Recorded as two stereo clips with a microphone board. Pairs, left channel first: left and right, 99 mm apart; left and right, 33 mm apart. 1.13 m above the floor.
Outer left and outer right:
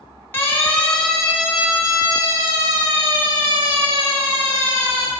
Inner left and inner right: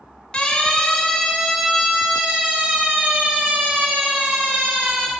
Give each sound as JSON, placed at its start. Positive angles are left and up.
{"t": 0.3, "sound": "a siren", "side_deg": 25, "distance_m": 3.0}